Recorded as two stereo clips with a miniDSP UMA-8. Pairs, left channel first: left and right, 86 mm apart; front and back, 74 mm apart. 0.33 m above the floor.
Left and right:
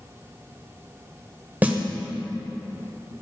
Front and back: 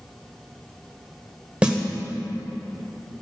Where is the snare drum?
125° right, 1.1 m.